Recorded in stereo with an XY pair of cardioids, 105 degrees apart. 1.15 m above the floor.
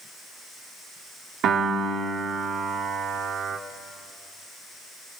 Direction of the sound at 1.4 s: 70° right.